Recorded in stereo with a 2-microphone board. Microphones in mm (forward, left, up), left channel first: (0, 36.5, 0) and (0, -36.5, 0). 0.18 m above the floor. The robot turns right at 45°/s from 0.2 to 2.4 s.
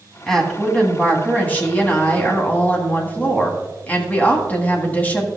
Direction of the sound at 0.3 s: 5° left (ahead or behind).